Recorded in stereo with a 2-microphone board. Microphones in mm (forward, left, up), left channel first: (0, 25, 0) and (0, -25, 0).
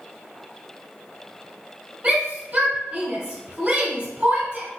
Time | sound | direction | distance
2.0 | a shout | 25° right (ahead or behind) | 1.0 m